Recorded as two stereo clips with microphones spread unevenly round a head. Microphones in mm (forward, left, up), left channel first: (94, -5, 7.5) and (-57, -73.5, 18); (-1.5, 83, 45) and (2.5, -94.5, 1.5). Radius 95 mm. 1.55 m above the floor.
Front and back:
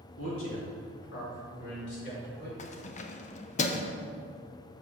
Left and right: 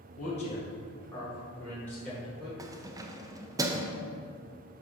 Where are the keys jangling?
10° right, 0.6 m.